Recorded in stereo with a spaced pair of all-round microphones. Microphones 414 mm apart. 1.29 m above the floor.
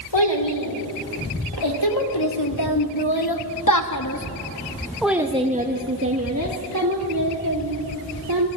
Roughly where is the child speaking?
Left.